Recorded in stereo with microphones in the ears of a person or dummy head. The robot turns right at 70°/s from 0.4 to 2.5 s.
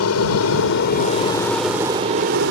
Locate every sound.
0.0 s an aircraft: 75° left (ahead or behind); by 2.5 s 60° right (ahead or behind)